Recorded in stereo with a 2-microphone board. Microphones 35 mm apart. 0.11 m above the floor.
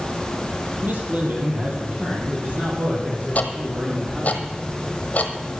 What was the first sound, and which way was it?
A man speaking, 55° right (ahead or behind).